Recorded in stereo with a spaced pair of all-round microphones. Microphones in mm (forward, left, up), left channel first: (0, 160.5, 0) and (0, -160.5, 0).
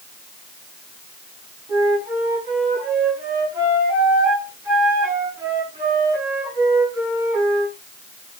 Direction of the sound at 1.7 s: 10° right (ahead or behind).